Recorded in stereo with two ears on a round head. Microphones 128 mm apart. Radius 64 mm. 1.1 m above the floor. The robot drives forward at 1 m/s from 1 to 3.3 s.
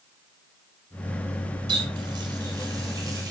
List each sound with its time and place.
1.7 s a running tap: 35° right (ahead or behind), 4.5 m; by 3.3 s 25° right (ahead or behind), 6 m